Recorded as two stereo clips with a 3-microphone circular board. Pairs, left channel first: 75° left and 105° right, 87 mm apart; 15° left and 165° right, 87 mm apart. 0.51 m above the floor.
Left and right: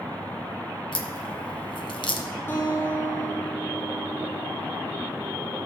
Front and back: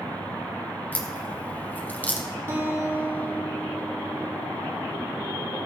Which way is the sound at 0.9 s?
85° left.